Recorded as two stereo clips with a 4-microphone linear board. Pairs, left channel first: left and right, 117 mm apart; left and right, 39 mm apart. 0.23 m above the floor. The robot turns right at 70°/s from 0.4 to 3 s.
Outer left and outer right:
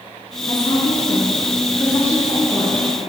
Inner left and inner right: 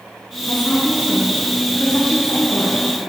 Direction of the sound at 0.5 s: 40° left.